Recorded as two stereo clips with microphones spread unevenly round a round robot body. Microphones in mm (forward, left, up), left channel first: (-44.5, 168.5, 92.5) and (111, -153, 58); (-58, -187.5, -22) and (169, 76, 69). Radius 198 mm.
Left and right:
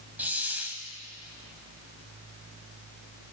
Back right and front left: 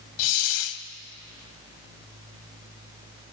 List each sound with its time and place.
0.2 s a hiss: 155° right, 0.9 m